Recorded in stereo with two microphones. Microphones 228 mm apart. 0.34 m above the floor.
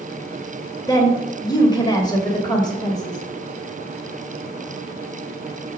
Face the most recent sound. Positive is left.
turn(degrees=20)  # may be behind; listen again after turning